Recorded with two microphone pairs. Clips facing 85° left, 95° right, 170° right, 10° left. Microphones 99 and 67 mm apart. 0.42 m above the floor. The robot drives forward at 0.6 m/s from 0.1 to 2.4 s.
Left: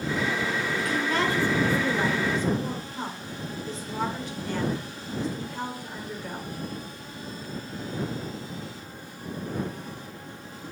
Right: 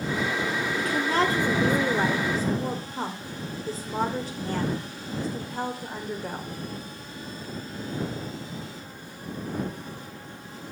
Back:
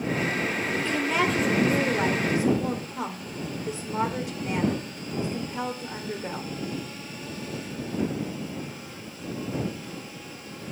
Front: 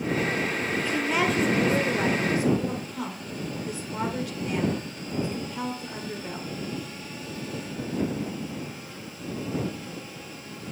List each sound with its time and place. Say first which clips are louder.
0.8 s a woman speaking: right 3 dB, even; 60° right, 1.7 m; by 6.5 s 115° right, 1.7 m